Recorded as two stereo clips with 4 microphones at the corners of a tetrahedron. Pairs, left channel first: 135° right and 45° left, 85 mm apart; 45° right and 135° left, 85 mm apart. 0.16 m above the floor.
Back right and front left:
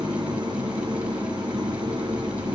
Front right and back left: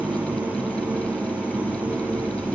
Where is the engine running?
65° left, 1.5 m.